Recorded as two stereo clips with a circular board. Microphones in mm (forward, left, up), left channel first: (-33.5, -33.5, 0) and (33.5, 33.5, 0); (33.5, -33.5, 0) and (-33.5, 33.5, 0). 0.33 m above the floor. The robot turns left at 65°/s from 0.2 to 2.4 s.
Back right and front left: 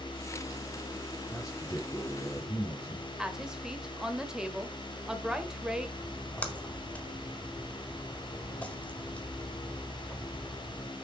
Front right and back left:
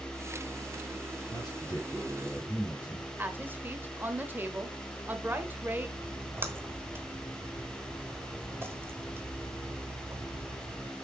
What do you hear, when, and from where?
1.3 s a man speaking: 80° right, 2.5 m; by 3.1 s 150° right, 2.5 m
3.2 s a woman speaking: 115° left, 1.2 m
6.0 s a splash: 165° left, 1.3 m